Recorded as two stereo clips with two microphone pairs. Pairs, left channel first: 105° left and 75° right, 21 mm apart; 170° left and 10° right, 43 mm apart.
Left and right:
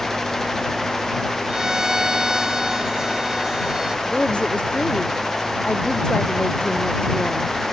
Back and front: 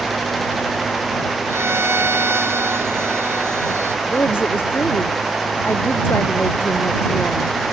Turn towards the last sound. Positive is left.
turn(degrees=140)